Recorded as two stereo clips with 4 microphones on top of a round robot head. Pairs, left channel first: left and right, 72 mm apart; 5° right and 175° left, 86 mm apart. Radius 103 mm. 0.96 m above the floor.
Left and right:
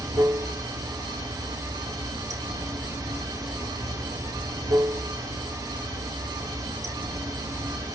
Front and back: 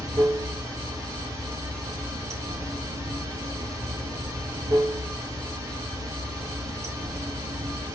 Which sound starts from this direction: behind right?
Running water, at 0.0 s.